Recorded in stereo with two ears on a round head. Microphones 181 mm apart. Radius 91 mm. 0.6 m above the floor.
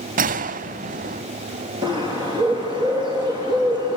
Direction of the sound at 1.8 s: 25° right (ahead or behind).